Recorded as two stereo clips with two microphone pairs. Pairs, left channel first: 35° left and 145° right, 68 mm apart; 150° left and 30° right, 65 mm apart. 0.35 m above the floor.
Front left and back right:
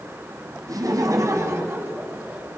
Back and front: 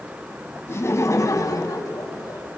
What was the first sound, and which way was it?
Laughter, 160° right.